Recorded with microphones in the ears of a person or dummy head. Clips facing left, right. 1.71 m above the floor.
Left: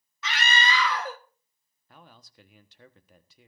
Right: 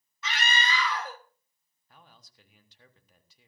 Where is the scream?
55° left (ahead or behind), 1.5 m.